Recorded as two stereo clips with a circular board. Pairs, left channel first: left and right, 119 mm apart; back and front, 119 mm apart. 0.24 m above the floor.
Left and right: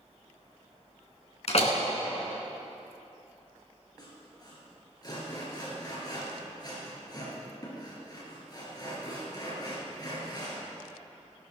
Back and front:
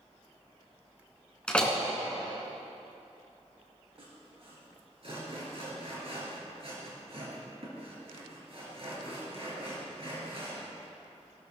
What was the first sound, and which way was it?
A door slam, 100° left.